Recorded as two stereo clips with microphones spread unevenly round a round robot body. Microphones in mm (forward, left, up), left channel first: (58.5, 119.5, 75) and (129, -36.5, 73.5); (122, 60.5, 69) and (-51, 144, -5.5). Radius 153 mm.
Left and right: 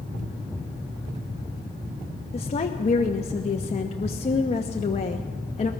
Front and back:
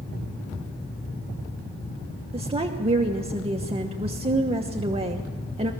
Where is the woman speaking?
155° left, 1.1 m.